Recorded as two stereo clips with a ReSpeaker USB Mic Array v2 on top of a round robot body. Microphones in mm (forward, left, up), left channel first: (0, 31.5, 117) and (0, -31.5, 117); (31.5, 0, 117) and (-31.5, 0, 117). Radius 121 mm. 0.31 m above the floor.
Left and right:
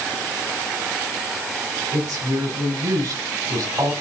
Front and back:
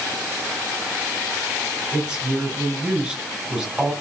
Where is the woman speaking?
100° right, 4 m.